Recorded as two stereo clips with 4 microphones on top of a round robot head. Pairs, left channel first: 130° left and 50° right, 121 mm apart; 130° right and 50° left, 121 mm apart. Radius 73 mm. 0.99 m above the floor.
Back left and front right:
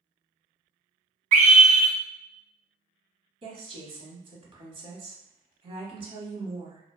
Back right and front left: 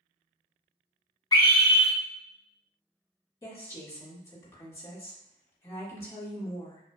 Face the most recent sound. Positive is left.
turn(degrees=-70)